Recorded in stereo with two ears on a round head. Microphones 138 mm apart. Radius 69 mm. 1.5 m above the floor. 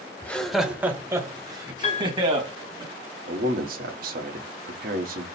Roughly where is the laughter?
Centre.